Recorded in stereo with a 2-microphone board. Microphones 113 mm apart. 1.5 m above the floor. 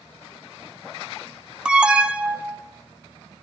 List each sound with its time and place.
1.6 s an alarm: 10° right (ahead or behind), 1.0 m